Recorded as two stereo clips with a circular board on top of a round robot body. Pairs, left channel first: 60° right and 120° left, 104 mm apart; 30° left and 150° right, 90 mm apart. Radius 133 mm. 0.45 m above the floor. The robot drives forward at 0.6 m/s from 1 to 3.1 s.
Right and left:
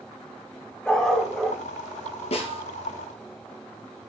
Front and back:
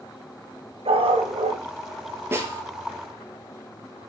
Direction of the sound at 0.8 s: 145° right.